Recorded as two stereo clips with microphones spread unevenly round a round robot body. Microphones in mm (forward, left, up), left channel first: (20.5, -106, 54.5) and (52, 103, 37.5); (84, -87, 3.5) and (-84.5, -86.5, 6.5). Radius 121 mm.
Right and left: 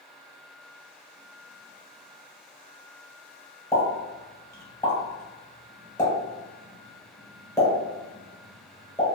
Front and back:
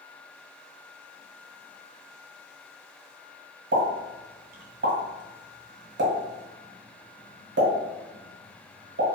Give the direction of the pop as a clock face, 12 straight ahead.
6 o'clock.